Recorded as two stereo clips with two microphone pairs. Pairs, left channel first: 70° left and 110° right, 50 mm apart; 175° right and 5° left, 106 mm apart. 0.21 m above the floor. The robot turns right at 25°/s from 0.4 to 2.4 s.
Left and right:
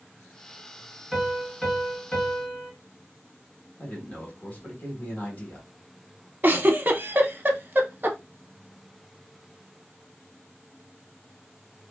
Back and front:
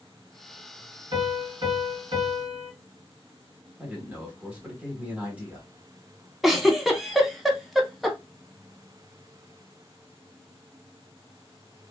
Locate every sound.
1.1 s a piano: 20° right, 2 m; by 2.7 s 10° left, 2 m
3.8 s a man speaking: 70° left, 1.2 m
6.4 s a giggle: 80° right, 0.6 m